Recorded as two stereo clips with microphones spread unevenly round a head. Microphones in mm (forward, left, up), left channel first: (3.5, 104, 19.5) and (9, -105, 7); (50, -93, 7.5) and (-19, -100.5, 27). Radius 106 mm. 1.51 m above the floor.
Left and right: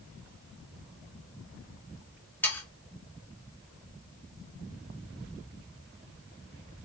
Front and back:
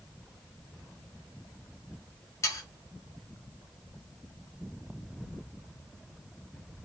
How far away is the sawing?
About 1.0 m.